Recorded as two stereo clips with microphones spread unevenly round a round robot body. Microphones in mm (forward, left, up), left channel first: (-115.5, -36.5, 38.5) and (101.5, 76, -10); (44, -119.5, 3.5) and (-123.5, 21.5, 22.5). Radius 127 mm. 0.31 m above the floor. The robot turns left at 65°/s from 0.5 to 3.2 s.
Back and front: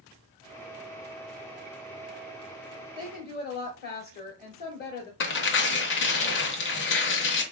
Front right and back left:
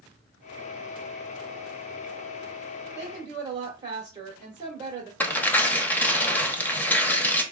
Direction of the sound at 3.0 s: 145° right.